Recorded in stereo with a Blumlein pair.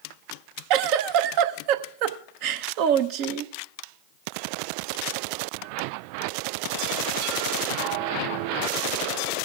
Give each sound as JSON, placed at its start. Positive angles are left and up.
{"t": 0.7, "sound": "a giggle", "azimuth_deg": -45, "distance_m": 0.7}